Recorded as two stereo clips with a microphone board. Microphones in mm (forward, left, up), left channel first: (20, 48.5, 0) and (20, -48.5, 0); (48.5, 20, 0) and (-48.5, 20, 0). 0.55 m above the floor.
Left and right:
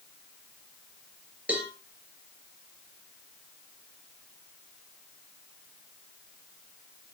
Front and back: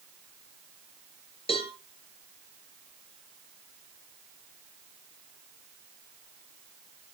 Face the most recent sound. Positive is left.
turn(degrees=-15)